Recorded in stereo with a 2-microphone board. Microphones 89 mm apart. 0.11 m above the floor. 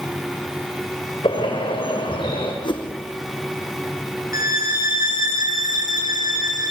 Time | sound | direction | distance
1.2 | a bird | 65° left (ahead or behind) | 7 m
2.6 | a whoosh | 60° left (ahead or behind) | 3 m
4.3 | a violin | 40° right (ahead or behind) | 6.5 m